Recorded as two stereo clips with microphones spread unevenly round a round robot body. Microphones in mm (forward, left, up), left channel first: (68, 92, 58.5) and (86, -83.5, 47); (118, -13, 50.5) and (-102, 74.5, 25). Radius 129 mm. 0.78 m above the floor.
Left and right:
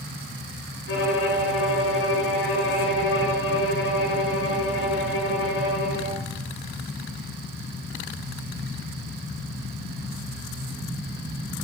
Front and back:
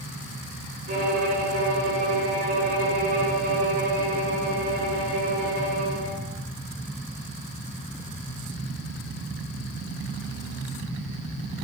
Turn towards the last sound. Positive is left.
turn(degrees=100)